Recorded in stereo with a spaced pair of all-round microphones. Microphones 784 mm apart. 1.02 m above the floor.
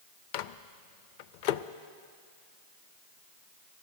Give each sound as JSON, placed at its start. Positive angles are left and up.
{"t": 0.3, "sound": "a microwave", "side_deg": 75, "distance_m": 0.6}